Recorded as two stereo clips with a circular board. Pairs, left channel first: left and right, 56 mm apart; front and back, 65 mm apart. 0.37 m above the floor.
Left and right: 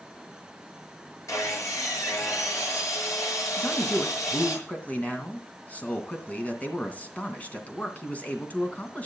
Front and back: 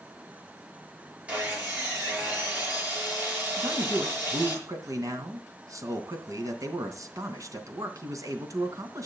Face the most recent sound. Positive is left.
turn(degrees=150)